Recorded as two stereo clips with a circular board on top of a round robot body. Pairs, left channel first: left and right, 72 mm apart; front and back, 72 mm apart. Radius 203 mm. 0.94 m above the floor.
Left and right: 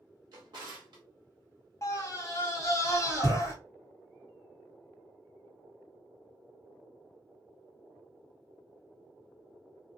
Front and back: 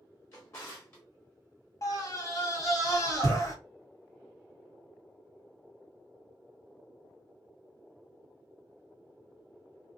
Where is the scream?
45° left, 1.6 m.